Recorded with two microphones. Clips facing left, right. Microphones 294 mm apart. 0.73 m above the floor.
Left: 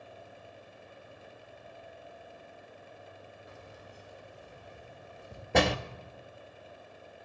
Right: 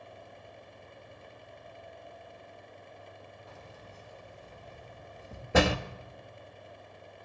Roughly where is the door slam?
Centre.